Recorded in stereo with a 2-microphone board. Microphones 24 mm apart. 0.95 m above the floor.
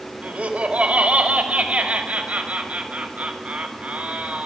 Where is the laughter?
80° right, 4.5 m.